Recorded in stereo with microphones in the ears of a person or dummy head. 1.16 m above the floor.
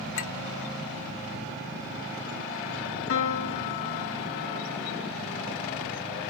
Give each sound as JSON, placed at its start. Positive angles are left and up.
{"t": 0.1, "sound": "a clink", "side_deg": 65, "distance_m": 1.6}
{"t": 3.1, "sound": "a piano", "side_deg": 65, "distance_m": 1.7}